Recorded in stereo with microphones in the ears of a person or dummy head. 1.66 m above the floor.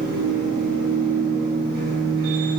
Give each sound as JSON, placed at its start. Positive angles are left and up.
{"t": 0.0, "sound": "a machine running", "side_deg": -70, "distance_m": 5.5}